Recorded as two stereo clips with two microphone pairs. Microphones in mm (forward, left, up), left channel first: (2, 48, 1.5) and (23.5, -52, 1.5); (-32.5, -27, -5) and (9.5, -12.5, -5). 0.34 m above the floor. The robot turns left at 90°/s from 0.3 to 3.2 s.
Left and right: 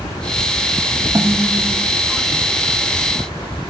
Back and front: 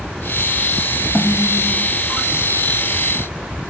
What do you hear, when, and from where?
1.1 s a snare drum: 130° right; by 1.9 s 160° left